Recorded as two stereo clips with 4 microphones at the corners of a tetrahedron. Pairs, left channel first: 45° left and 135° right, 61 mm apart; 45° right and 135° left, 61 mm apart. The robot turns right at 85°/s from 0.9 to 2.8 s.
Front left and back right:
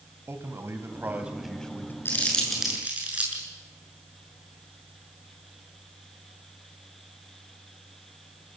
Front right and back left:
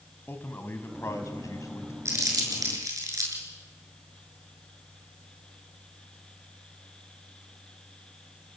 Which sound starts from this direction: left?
Crumpling, at 2.0 s.